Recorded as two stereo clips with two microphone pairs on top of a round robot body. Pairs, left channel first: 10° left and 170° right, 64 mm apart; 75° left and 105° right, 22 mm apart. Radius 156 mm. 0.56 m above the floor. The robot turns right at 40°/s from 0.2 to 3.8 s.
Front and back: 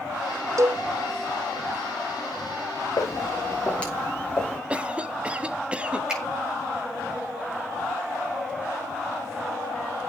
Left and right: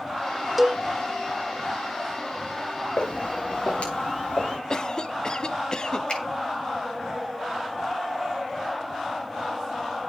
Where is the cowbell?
165° left, 1.3 m; by 0.8 s 175° left, 1.3 m.